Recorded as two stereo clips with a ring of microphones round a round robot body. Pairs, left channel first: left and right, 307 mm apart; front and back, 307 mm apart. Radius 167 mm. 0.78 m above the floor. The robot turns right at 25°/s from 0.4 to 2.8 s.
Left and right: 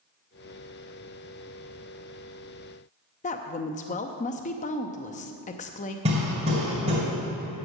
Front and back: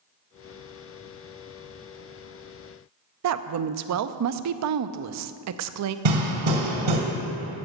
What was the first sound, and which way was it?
A woman speaking, 155° left.